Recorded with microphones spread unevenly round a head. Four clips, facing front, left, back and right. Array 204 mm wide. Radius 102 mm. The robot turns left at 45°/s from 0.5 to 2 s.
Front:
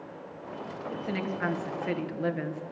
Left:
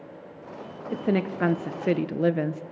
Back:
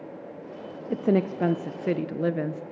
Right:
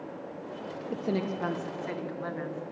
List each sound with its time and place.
0.9 s a woman speaking: 170° left, 0.7 m; by 2.6 s 120° left, 0.7 m